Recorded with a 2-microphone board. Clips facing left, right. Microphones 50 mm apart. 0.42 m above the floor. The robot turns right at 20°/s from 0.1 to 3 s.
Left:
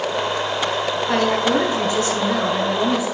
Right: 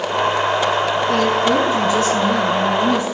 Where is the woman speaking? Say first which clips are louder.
Even; 130° left, 4 m; by 3.0 s 170° left, 4 m.